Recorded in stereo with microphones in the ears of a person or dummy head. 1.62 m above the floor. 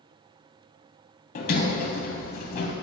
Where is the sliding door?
50° left (ahead or behind), 0.8 m.